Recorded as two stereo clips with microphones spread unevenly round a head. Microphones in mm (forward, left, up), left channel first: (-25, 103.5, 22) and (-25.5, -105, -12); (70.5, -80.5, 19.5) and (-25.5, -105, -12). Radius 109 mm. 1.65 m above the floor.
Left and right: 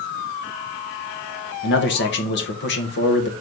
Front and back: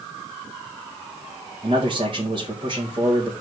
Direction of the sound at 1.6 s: 125° left.